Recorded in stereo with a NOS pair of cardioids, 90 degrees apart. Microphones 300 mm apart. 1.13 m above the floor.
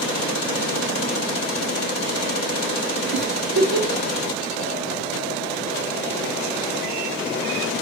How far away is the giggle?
About 1.4 m.